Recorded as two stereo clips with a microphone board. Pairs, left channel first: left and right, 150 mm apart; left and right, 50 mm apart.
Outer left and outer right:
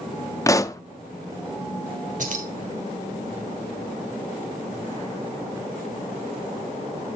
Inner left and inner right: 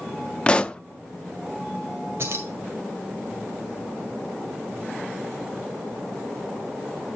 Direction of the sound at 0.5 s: 20° left (ahead or behind).